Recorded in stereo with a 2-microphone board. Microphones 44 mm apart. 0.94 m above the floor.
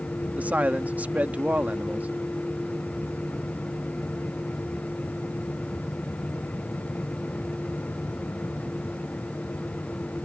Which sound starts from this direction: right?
A man speaking, at 0.4 s.